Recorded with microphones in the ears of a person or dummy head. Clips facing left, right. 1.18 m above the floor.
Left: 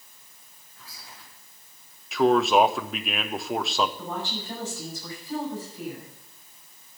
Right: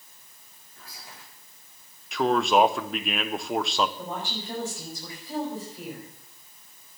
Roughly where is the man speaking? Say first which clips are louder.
Left 2 dB; centre.